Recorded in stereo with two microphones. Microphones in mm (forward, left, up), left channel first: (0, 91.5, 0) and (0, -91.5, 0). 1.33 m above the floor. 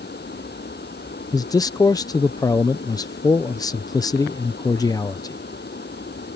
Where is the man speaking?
20° left (ahead or behind).